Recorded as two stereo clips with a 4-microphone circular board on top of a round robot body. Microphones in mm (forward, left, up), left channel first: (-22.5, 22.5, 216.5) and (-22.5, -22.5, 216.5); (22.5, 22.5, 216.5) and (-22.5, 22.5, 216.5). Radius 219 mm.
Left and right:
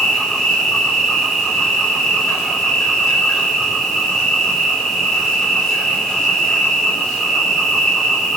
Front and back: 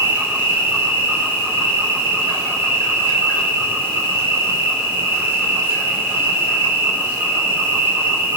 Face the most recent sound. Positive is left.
turn(degrees=170)